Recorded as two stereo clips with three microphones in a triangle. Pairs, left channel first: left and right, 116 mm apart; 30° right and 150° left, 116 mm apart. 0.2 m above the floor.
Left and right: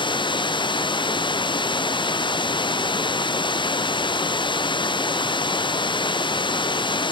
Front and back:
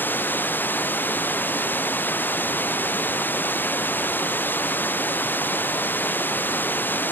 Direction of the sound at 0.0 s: 45° left.